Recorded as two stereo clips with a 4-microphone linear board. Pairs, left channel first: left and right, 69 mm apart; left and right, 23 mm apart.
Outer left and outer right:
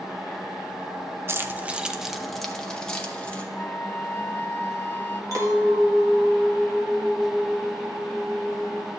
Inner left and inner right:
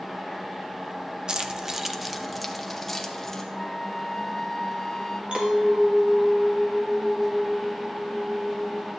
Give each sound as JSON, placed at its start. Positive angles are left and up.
{"t": 1.3, "sound": "keys jangling", "side_deg": -35, "distance_m": 0.5}
{"t": 3.5, "sound": "a flute", "side_deg": 30, "distance_m": 0.6}
{"t": 5.3, "sound": "a clink", "side_deg": -55, "distance_m": 1.6}